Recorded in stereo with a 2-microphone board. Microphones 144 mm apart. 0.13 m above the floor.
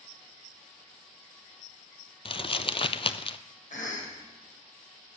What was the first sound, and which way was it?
Crumpling, 40° left (ahead or behind).